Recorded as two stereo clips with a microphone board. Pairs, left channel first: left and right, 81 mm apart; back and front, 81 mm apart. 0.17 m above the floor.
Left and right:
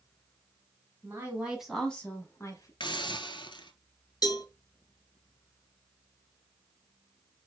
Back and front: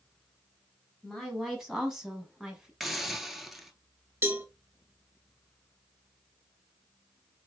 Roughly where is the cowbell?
Ahead left.